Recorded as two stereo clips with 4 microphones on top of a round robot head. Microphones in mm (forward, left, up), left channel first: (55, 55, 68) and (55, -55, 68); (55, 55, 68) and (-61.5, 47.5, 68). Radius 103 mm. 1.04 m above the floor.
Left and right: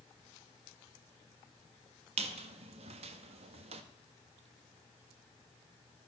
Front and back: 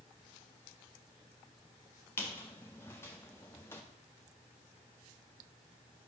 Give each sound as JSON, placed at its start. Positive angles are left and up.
{"t": 2.2, "sound": "a squeak", "azimuth_deg": -75, "distance_m": 0.6}